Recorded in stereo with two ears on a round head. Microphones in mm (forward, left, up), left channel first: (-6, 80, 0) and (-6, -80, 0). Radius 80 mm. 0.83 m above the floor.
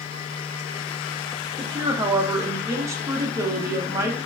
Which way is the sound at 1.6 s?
15° right (ahead or behind).